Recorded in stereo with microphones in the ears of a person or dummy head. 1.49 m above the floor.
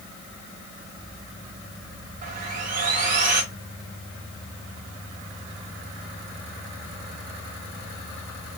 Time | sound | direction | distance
2.2 | sawing | 40° right (ahead or behind) | 1.1 m